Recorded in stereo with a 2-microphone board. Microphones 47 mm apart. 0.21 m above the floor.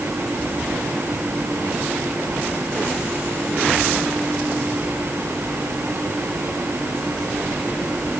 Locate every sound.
Only background noise.